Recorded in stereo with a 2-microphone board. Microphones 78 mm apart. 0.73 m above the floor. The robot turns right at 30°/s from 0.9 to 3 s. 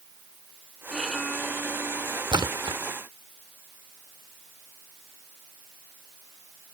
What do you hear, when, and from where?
0.9 s a violin: 5° right; by 2.2 s 35° left
2.3 s a splash: 75° right (ahead or behind); by 2.8 s 80° right